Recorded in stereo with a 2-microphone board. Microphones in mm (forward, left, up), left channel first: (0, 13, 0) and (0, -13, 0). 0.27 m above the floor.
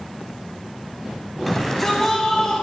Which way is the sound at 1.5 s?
5° left (ahead or behind).